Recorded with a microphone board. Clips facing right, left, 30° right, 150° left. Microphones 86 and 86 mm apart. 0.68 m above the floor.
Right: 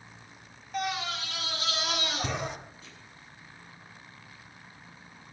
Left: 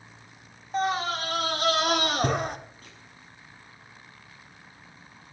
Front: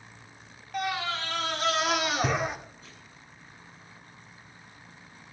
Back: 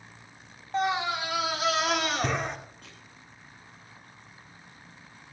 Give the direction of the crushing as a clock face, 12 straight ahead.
8 o'clock.